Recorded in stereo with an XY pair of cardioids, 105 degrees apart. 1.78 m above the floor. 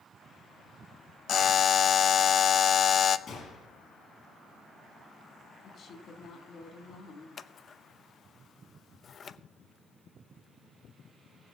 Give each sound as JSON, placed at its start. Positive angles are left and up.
{"t": 1.3, "sound": "a buzzer", "azimuth_deg": 50, "distance_m": 0.6}
{"t": 3.3, "sound": "a gunshot", "azimuth_deg": 55, "distance_m": 5.0}
{"t": 5.6, "sound": "a woman speaking", "azimuth_deg": 55, "distance_m": 3.5}
{"t": 7.4, "sound": "scissors", "azimuth_deg": 45, "distance_m": 0.6}